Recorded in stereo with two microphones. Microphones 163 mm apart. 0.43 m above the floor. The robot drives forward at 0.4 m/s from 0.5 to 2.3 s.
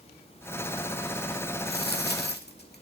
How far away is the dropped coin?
About 0.9 m.